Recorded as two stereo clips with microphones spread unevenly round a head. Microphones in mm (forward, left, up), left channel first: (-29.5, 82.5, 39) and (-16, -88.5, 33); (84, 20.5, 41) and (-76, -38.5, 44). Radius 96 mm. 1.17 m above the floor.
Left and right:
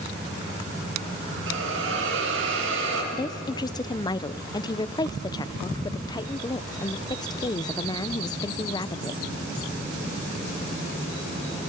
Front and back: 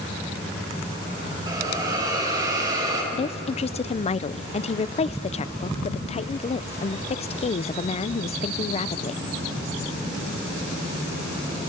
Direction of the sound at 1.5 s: 90° right.